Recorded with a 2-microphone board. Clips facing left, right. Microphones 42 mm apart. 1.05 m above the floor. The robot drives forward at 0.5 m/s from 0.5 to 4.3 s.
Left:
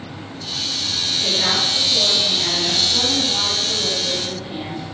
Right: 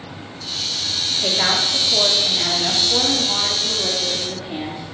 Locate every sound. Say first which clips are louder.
1.2 s a woman speaking: right 1 dB; 80° right, 2 m; by 4.8 s 55° right (ahead or behind), 2.5 m